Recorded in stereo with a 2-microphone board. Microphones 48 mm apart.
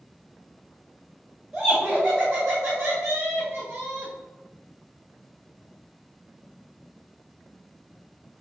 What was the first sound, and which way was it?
Laughter, 20° right (ahead or behind).